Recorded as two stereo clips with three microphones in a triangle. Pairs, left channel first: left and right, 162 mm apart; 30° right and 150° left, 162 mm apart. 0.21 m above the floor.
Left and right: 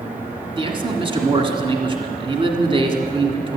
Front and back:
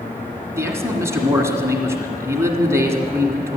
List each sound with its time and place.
0.6 s a man speaking: 140° right, 1.7 m